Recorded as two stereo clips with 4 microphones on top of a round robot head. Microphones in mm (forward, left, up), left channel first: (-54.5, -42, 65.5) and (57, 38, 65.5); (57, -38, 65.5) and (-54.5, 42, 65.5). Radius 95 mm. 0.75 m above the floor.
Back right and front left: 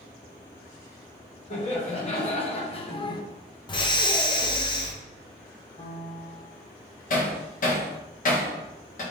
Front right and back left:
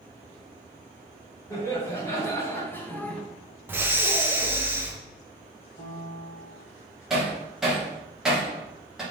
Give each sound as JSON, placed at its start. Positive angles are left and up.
{"t": 1.5, "sound": "laughter", "azimuth_deg": -105, "distance_m": 2.0}
{"t": 3.7, "sound": "breathing", "azimuth_deg": -155, "distance_m": 0.9}
{"t": 5.8, "sound": "a piano", "azimuth_deg": -85, "distance_m": 1.0}
{"t": 7.1, "sound": "hammering", "azimuth_deg": -130, "distance_m": 1.7}